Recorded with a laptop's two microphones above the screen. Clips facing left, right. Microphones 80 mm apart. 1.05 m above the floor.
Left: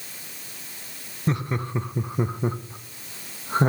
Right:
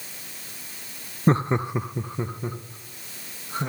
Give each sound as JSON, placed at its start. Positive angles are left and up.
{"t": 1.3, "sound": "laughter", "side_deg": -40, "distance_m": 0.5}